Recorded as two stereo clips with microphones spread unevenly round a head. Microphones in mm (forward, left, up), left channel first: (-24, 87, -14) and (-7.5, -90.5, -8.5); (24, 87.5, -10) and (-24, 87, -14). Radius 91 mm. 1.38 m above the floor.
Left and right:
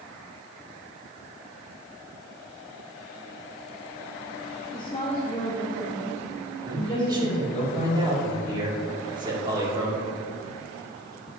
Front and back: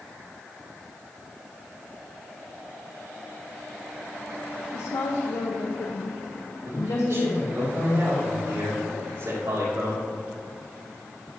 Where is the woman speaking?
30° left, 0.7 m.